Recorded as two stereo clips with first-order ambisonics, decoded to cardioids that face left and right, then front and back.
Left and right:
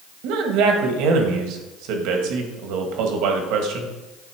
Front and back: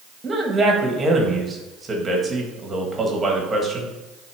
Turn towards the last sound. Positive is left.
turn(degrees=-110)